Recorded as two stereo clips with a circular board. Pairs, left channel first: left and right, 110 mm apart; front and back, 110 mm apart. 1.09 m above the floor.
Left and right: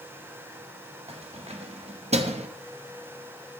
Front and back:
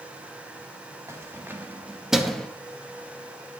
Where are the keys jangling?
115° right, 1.8 m; by 2.5 s 80° right, 0.9 m.